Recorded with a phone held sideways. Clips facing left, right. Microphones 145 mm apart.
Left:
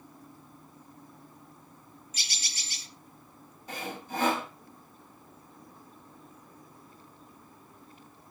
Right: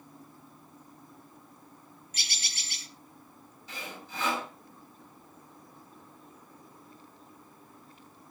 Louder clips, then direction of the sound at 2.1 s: Right 1 dB; 65° right (ahead or behind).